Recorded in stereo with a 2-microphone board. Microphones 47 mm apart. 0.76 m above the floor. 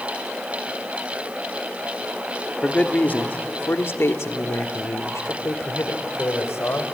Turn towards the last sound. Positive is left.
turn(degrees=70)  # may be behind; listen again after turning